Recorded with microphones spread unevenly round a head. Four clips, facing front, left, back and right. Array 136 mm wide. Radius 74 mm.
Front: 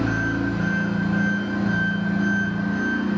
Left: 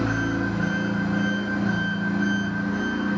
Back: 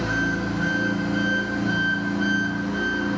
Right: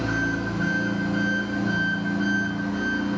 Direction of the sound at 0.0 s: 25° left.